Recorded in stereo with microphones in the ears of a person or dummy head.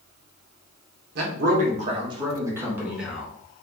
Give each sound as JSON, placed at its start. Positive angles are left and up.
{"t": 1.1, "sound": "a man speaking", "side_deg": -50, "distance_m": 0.9}